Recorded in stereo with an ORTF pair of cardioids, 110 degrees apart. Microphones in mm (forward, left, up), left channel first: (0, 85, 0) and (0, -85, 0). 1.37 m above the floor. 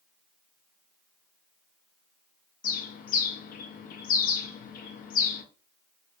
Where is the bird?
55° left, 0.6 m.